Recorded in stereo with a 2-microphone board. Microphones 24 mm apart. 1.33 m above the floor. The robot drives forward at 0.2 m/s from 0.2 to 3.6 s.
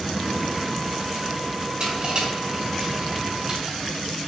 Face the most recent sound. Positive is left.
turn(degrees=-40)  # may be behind; listen again after turning